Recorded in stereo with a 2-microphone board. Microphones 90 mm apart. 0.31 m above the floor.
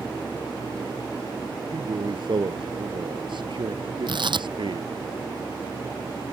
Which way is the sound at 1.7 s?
65° right (ahead or behind).